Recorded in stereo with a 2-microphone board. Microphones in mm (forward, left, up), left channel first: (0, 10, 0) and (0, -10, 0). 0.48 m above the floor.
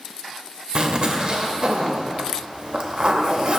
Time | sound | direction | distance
0.8 | a zipper | 45° right (ahead or behind) | 0.7 m